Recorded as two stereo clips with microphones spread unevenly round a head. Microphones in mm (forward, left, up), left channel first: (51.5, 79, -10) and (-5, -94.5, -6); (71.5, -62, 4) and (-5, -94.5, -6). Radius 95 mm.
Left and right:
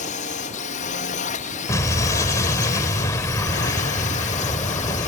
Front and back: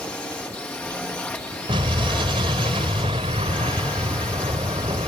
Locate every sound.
0.0 s a drone: 100° left
1.7 s an explosion: 145° left